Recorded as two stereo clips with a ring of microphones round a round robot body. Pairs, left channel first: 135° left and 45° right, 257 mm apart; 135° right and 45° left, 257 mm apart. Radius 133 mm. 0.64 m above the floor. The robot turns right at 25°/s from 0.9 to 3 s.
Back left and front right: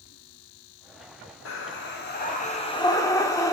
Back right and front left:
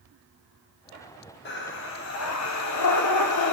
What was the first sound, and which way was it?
Breathing, 175° left.